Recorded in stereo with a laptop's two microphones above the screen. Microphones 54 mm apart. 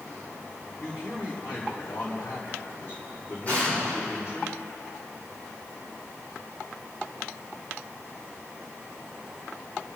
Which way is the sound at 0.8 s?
60° left (ahead or behind).